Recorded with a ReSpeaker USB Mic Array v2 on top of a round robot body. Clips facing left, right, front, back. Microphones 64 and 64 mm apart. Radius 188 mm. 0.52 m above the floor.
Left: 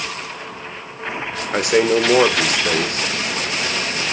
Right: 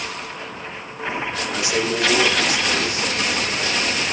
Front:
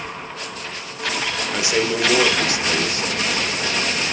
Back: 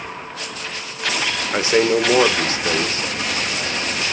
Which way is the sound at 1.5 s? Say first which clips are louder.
Left 8 dB, back 5 dB; 125° left.